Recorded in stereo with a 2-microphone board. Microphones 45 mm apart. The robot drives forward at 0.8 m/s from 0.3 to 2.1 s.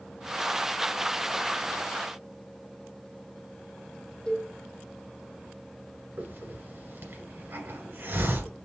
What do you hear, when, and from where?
4.3 s a cowbell: 20° left (ahead or behind), 3 m
6.2 s a hiss: 45° right (ahead or behind), 1.7 m